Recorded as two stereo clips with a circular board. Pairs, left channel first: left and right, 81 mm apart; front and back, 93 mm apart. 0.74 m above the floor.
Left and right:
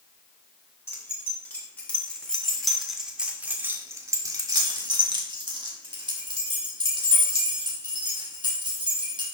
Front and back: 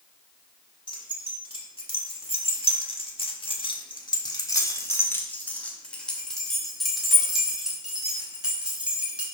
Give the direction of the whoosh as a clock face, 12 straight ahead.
No whoosh in this recording.